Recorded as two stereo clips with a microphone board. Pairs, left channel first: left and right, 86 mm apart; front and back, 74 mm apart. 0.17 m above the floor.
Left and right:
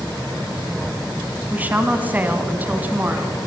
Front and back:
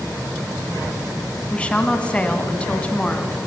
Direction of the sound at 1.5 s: 55° right.